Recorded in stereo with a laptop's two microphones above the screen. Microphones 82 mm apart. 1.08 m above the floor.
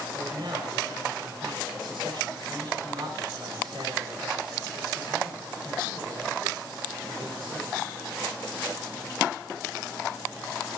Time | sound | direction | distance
0.1 | a man speaking | 70° right (ahead or behind) | 4 m